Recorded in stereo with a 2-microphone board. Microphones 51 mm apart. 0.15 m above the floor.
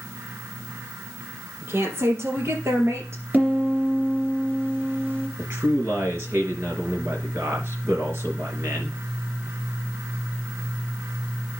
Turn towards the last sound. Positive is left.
turn(degrees=-55)  # may be behind; listen again after turning